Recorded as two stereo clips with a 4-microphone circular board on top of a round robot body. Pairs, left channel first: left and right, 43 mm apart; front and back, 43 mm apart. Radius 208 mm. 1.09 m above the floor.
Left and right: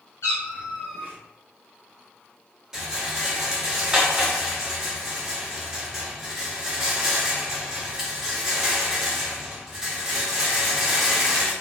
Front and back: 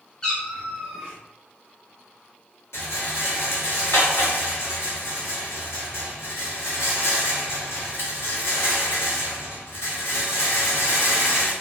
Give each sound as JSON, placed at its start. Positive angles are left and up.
{"t": 0.2, "sound": "a cat meowing", "azimuth_deg": 80, "distance_m": 0.5}
{"t": 2.7, "sound": "a rattle", "azimuth_deg": -15, "distance_m": 1.7}